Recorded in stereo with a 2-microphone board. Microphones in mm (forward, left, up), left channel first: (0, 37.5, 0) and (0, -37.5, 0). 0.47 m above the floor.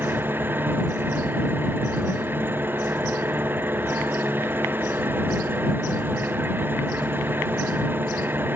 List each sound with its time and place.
0.0 s an engine running: 25° right (ahead or behind)